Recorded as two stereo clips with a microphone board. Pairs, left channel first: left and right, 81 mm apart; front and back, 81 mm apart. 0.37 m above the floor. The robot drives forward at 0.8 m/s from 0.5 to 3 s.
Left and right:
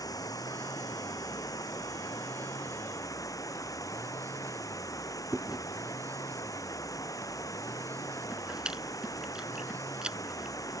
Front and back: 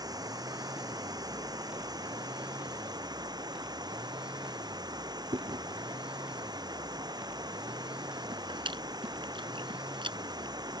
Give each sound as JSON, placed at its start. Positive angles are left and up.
{"t": 0.0, "sound": "running water", "azimuth_deg": 135}
{"t": 5.3, "sound": "chewing", "azimuth_deg": -170}